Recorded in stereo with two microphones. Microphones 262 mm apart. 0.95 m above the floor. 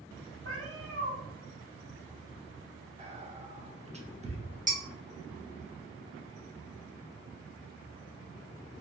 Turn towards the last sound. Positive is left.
turn(degrees=-30)  # may be behind; listen again after turning